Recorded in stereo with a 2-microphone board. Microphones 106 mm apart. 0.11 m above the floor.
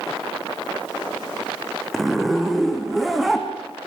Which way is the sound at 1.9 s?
Centre (ahead or behind).